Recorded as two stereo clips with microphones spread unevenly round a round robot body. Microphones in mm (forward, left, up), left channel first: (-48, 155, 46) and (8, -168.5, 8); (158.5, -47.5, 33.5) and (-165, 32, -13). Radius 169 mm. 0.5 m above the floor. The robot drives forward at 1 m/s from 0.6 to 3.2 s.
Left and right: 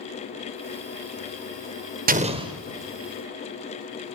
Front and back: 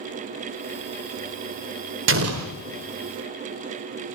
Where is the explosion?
140° right, 0.7 m; by 2.5 s 155° right, 1.1 m.